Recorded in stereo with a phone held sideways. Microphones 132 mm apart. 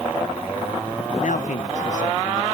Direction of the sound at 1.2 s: 75° left (ahead or behind).